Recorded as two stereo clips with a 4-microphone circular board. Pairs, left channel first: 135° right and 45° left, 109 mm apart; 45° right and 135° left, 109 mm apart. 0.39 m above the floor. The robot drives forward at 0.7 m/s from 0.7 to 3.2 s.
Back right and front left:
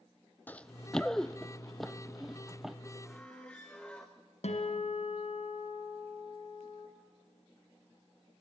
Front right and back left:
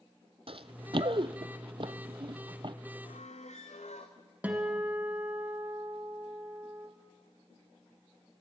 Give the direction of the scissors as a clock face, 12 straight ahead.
I don't hear scissors.